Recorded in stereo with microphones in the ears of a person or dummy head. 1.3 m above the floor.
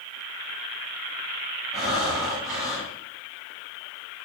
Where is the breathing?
Centre (ahead or behind), 1.7 m.